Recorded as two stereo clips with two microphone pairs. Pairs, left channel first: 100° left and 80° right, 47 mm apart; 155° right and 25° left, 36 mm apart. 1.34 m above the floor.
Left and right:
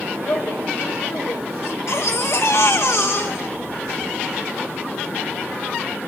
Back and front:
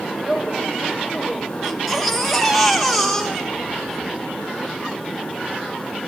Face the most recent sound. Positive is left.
turn(degrees=120)